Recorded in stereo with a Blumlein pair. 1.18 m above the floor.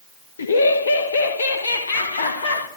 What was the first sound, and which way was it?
Laughter, 70° left.